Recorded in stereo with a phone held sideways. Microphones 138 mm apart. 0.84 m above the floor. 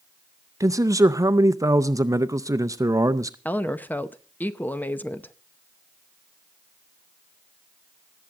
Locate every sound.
0.6 s a man speaking: 25° right (ahead or behind), 0.5 m
3.5 s a woman speaking: 15° left (ahead or behind), 0.7 m